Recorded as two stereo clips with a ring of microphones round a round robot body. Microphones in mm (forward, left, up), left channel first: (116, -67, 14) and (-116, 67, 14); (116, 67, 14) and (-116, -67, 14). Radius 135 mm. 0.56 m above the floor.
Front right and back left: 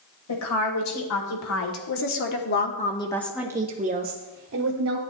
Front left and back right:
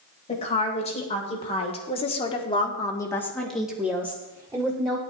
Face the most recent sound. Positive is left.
turn(degrees=140)